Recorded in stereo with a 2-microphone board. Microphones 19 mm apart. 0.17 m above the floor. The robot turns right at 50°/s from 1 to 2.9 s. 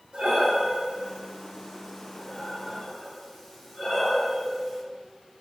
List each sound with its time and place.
0.1 s breathing: 75° right (ahead or behind), 7 m; by 4.8 s 15° left (ahead or behind), 7 m